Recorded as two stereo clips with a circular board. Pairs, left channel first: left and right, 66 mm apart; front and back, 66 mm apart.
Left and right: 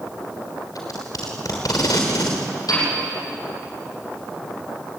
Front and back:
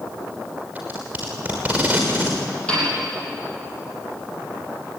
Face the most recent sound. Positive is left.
turn(degrees=75)